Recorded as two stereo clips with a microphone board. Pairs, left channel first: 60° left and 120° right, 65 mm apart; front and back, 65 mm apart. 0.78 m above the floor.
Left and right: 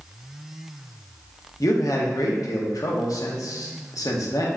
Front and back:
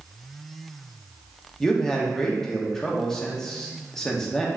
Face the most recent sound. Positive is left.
turn(degrees=80)